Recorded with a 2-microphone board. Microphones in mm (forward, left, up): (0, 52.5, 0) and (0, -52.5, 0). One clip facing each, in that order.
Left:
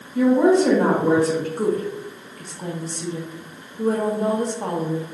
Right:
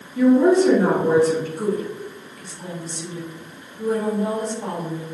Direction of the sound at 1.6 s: 50° left (ahead or behind).